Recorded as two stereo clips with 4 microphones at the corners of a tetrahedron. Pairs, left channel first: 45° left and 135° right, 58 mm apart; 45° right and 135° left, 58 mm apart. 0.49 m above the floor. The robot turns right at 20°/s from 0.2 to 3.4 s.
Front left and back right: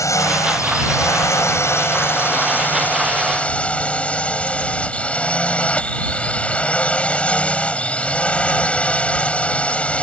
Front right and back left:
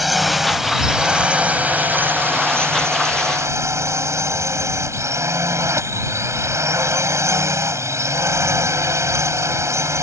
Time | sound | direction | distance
0.0 | a drone | 45° left | ?